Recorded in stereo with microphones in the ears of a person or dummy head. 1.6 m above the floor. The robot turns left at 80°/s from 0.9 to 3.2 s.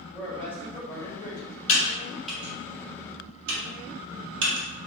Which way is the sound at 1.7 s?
50° left (ahead or behind).